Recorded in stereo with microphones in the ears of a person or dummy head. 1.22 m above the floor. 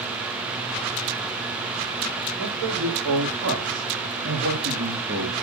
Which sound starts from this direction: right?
A man speaking, at 2.4 s.